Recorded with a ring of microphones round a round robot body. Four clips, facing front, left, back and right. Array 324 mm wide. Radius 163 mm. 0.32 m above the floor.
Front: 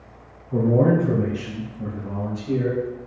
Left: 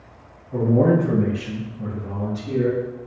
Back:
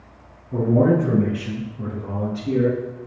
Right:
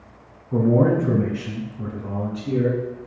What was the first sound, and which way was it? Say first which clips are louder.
A man speaking: even, back 1 dB; 95° right.